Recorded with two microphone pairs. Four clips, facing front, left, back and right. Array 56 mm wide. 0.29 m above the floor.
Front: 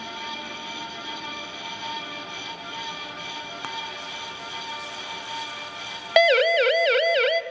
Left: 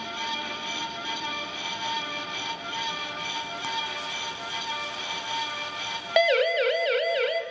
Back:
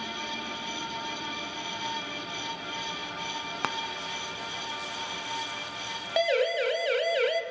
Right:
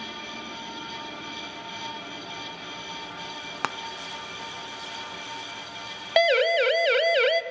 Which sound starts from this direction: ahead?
A siren, at 6.2 s.